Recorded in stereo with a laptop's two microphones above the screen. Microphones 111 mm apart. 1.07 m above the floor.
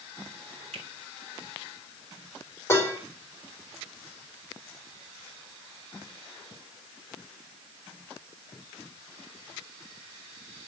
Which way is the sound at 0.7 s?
85° right.